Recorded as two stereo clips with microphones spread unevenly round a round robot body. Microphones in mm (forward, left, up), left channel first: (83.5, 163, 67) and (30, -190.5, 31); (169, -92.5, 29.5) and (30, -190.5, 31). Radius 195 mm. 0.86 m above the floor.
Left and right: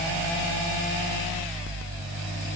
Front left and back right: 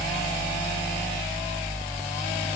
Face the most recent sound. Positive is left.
No sound to turn to.